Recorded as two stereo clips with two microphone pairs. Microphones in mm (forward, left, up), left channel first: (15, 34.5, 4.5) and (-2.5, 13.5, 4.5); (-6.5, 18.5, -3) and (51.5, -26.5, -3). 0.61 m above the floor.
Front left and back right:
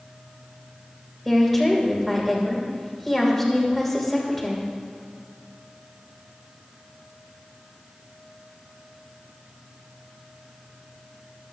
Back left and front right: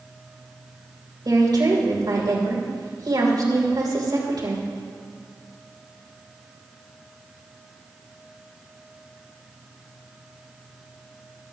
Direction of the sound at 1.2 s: 35° right.